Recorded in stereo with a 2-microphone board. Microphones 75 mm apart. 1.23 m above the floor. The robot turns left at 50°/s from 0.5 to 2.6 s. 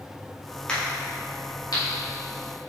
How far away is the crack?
About 2 m.